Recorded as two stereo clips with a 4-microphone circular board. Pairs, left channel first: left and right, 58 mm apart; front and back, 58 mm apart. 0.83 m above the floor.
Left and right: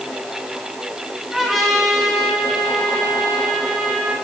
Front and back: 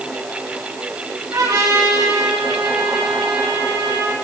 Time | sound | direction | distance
1.3 | a trumpet | 175° right | 6.5 m